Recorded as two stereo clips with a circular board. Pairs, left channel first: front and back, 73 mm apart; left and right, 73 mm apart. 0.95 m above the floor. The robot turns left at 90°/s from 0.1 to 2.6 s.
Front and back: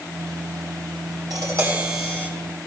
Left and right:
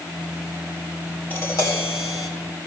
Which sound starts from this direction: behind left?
Tapping, at 1.3 s.